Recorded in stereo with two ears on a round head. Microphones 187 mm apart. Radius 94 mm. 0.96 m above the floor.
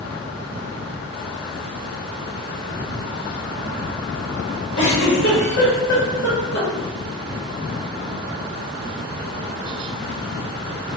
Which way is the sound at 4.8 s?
60° left (ahead or behind).